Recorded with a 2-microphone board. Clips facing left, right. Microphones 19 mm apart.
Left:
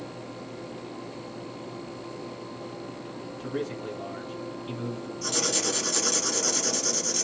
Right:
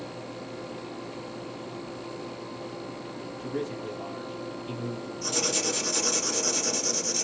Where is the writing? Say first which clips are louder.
Left 1 dB; 20° left (ahead or behind), 1.8 m.